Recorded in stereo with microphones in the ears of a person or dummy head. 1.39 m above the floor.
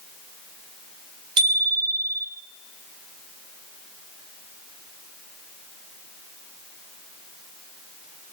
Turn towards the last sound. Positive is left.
turn(degrees=-30)  # may be behind; listen again after turning